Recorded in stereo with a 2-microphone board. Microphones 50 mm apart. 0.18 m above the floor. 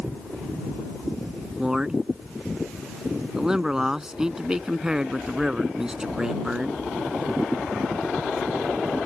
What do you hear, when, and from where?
1.6 s a man speaking: 15° right (ahead or behind)